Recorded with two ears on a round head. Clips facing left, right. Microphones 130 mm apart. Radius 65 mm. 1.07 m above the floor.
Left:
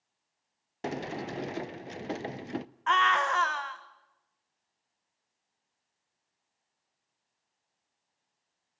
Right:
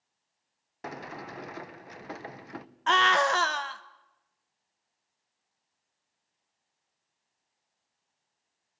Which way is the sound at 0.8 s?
30° left (ahead or behind).